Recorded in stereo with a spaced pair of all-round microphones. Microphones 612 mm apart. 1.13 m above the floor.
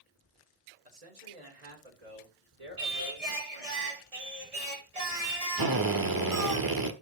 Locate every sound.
0.8 s a man speaking: 90° right, 3.5 m; by 3.8 s 65° right (ahead or behind), 3.5 m
2.8 s singing: 70° right (ahead or behind), 2 m
5.6 s a drill: 35° right (ahead or behind), 1.1 m